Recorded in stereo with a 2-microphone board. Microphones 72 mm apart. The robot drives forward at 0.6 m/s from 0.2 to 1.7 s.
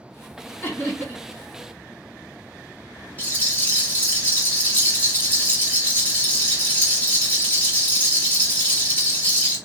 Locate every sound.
0.6 s laughter: 30° left (ahead or behind), 1.6 m; by 1.2 s 25° left (ahead or behind), 1.7 m
3.2 s a rattle: 25° left (ahead or behind), 1.9 m